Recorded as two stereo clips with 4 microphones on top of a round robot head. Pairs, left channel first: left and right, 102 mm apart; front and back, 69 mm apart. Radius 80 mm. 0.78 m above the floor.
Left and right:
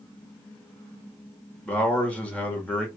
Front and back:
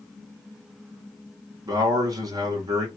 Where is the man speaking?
165° left, 1.5 m.